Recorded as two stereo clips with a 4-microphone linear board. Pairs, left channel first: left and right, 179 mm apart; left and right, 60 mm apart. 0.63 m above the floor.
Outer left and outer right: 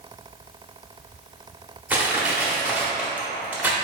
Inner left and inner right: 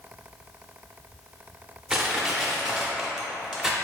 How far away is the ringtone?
No ringtone in this recording.